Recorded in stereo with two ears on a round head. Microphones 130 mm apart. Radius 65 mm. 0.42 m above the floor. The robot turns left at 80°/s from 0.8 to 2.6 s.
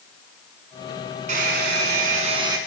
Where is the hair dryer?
55° right, 1.7 m; by 2.6 s 155° right, 1.7 m.